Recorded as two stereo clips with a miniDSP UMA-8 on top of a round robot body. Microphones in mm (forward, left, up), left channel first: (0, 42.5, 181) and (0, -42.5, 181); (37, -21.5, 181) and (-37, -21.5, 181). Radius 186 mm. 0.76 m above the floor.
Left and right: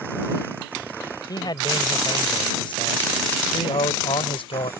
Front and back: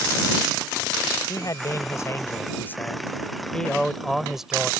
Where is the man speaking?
45° left; by 4.7 s 100° left.